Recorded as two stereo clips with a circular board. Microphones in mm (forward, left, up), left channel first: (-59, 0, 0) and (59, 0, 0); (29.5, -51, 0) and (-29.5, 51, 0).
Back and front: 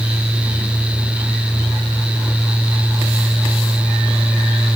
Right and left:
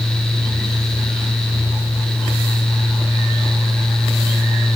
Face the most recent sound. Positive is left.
No sound to turn to.